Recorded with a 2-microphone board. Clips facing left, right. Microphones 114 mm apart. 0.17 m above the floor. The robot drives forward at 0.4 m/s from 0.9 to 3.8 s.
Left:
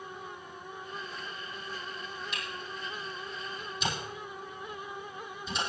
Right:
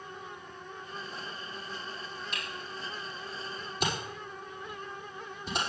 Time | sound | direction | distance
2.3 | a camera shutter | 50° right (ahead or behind) | 5.5 m